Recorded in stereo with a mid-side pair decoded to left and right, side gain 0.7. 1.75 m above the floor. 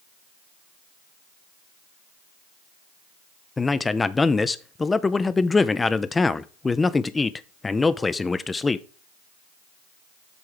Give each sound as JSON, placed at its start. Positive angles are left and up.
{"t": 3.6, "sound": "a man speaking", "azimuth_deg": 15, "distance_m": 0.6}